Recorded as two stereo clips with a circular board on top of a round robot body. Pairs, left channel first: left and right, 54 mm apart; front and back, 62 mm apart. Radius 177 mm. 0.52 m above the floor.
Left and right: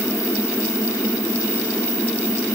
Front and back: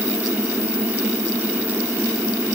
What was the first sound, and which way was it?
Only background noise.